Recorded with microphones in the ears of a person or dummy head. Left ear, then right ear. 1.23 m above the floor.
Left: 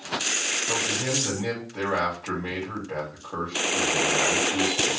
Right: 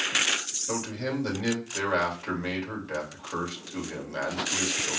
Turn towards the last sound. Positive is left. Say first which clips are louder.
# left 6 dB
turn(degrees=-60)  # may be behind; listen again after turning